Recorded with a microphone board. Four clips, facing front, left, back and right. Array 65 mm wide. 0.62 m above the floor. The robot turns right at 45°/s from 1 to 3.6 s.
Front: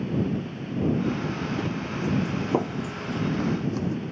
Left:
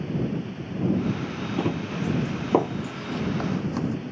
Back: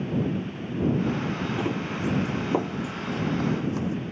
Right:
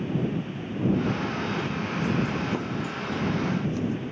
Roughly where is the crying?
I don't hear crying.